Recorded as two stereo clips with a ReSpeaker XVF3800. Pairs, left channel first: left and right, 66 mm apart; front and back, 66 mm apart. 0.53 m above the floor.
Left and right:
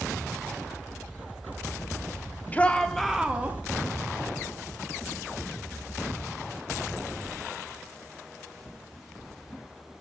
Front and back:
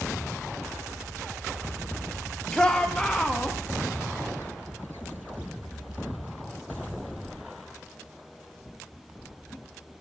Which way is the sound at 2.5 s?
65° left.